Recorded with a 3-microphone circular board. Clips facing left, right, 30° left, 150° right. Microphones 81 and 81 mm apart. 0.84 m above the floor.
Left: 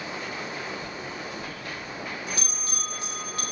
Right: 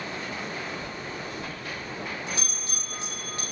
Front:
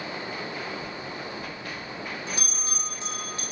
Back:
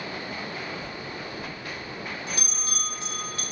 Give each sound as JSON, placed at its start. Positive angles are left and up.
{"t": 0.8, "sound": "a bell", "azimuth_deg": -35, "distance_m": 0.9}